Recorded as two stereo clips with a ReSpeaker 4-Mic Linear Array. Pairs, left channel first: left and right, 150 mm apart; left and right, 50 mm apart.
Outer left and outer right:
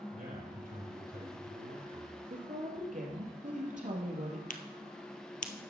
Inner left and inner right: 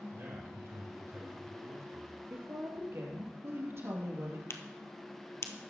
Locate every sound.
0.1 s a man speaking: 55° right (ahead or behind), 4 m; by 2.2 s 70° right (ahead or behind), 6 m
2.3 s a woman speaking: 55° right (ahead or behind), 3 m
4.5 s a crack: 60° left (ahead or behind), 1.2 m